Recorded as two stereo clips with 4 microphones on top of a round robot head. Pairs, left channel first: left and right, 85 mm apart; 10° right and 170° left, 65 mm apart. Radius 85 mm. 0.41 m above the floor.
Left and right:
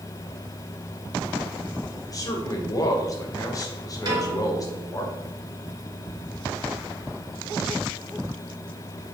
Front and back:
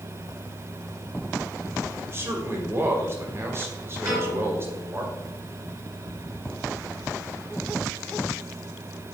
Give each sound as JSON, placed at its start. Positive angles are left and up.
{"t": 2.1, "sound": "a man speaking", "azimuth_deg": 130, "distance_m": 2.5}
{"t": 4.0, "sound": "a piano", "azimuth_deg": -130, "distance_m": 4.0}